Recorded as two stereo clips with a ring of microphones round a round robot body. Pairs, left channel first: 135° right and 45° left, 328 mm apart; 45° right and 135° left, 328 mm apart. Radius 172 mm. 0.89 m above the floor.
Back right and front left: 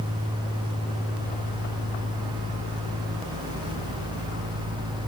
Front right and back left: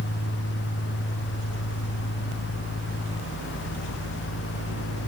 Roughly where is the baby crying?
I don't hear a baby crying.